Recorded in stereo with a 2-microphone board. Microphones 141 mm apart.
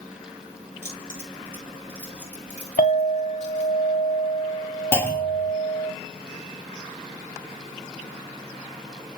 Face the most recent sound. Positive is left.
turn(degrees=15)  # may be behind; listen again after turning